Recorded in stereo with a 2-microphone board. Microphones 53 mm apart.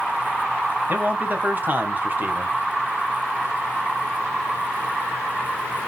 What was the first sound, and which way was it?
A man speaking, 30° right (ahead or behind).